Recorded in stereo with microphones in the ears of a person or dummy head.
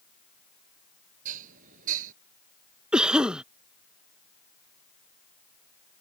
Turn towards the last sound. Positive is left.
turn(degrees=-5)  # may be behind; listen again after turning